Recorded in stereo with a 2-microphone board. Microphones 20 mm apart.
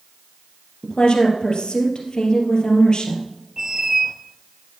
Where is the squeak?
30° right (ahead or behind), 0.8 m.